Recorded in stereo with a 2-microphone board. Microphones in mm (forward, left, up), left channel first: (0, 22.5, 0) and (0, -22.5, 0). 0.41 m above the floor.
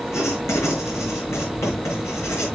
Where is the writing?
80° left, 5.5 m.